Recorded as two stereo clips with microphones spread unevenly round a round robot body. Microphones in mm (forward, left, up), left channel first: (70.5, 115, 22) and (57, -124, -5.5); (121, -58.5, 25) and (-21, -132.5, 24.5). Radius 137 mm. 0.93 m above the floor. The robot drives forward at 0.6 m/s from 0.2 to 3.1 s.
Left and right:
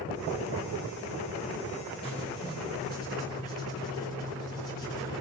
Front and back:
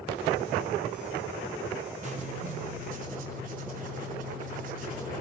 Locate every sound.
2.0 s writing: 160° left, 1.9 m; by 5.2 s 165° left, 2.5 m